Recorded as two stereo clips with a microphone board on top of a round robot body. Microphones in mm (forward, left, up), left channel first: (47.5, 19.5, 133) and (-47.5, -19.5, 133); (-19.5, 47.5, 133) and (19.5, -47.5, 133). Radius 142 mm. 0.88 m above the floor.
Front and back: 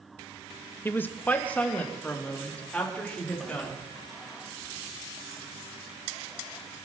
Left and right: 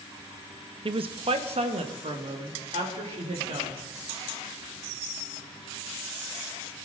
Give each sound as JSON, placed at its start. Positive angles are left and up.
{"t": 0.8, "sound": "a woman speaking", "azimuth_deg": -45, "distance_m": 0.7}